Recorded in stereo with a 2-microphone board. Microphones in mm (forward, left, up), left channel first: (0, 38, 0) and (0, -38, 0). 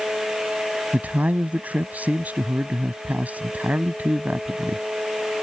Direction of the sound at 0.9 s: 20° right (ahead or behind).